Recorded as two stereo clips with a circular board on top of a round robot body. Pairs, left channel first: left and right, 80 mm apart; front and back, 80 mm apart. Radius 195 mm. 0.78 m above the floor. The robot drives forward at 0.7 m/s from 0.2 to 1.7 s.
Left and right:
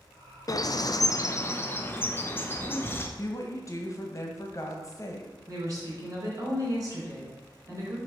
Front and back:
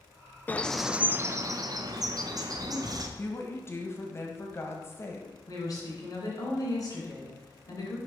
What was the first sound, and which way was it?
A bird, 60° left.